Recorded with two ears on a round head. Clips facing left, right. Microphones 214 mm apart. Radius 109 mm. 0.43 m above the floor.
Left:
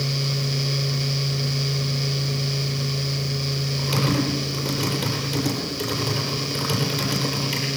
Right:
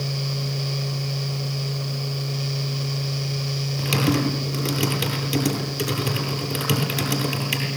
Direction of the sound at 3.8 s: 35° right (ahead or behind).